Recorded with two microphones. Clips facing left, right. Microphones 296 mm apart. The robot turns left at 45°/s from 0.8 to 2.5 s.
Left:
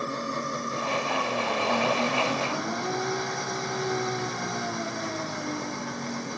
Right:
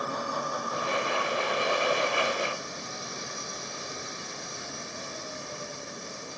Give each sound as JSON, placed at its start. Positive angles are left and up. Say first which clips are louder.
{"t": 0.0, "sound": "an engine running", "louder": "left 2 dB", "azimuth_deg": 155}